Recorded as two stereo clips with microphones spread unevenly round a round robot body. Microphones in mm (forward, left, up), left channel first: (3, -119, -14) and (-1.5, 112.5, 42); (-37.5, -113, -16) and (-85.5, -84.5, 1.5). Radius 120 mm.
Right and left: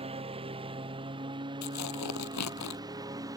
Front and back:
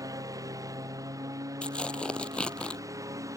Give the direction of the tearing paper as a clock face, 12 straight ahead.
3 o'clock.